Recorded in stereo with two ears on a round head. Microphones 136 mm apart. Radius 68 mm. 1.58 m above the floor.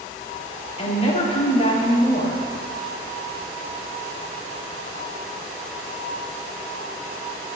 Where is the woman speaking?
45° left (ahead or behind), 3.5 m.